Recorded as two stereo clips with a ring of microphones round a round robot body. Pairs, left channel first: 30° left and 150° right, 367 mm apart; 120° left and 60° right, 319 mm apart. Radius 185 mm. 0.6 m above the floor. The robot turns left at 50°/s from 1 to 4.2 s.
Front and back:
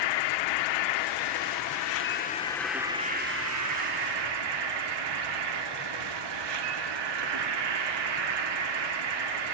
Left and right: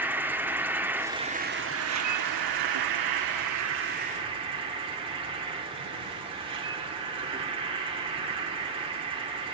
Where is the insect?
25° left, 0.9 m; by 9.5 s 135° right, 0.9 m.